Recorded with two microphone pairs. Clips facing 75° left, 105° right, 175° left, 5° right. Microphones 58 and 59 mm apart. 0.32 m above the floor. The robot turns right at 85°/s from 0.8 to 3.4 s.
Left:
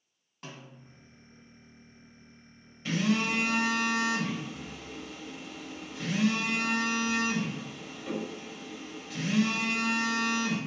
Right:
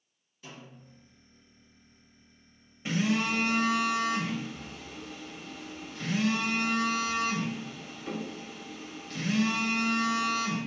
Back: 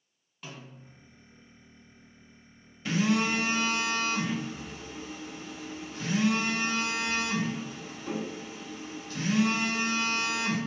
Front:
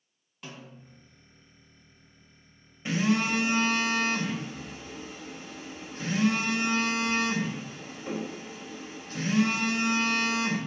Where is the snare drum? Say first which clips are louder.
Left 1 dB, front 1 dB; 85° left, 1.4 m; by 1.0 s 105° left, 1.4 m.